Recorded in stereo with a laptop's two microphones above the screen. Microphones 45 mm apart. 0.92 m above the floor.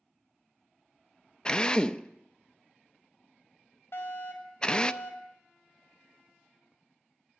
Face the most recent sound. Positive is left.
turn(degrees=65)  # may be behind; listen again after turning